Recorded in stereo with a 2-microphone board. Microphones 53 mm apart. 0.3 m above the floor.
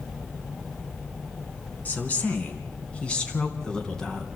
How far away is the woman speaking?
About 3 m.